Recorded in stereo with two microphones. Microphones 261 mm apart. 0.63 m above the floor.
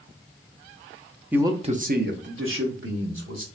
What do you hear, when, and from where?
1.3 s a man speaking: 5° right (ahead or behind), 0.6 m; by 3.5 s 60° right (ahead or behind), 1.4 m